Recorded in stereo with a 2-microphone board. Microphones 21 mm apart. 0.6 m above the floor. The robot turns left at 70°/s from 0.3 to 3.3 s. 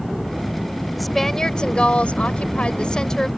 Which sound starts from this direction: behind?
A woman speaking, at 1.0 s.